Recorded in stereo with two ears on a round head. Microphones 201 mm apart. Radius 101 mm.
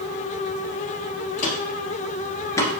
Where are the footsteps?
35° left (ahead or behind), 2 m; by 2.8 s 10° left (ahead or behind), 1.5 m.